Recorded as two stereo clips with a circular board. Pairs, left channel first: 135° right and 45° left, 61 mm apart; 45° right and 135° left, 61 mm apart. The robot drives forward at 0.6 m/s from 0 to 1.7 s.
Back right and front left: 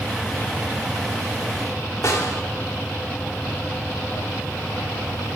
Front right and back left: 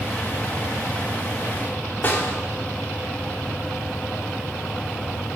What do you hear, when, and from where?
2.0 s a snare drum: 100° right, 1.4 m